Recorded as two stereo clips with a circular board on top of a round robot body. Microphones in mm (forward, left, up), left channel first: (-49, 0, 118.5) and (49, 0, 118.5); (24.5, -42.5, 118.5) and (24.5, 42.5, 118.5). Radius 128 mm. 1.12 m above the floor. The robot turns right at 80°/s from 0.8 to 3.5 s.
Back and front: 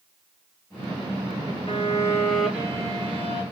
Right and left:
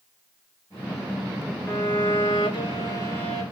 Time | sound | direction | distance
1.7 | a violin | 145° right | 1.8 m